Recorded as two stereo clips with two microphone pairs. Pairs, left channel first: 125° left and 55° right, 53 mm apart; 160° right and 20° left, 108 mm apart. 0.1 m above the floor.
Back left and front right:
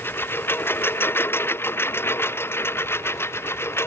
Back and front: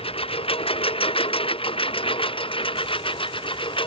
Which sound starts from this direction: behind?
A lawn mower, at 0.0 s.